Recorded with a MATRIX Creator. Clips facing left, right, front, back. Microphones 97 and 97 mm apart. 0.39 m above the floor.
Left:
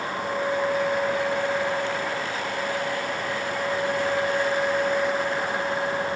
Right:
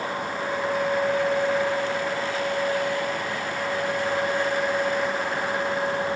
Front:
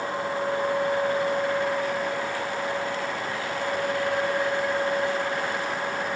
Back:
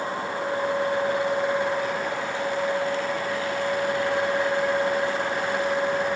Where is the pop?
No pop in this recording.